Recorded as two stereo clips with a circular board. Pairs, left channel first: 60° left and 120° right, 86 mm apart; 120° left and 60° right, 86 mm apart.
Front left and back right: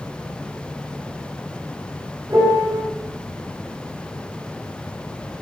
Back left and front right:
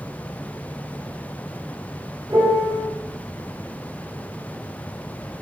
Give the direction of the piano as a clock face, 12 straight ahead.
3 o'clock.